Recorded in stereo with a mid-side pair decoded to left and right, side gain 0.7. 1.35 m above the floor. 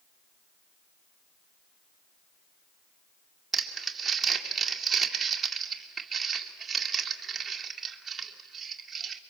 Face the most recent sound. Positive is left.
turn(degrees=-25)